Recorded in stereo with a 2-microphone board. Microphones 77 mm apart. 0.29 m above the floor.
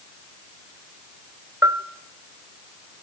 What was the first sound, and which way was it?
A bell, 45° right (ahead or behind).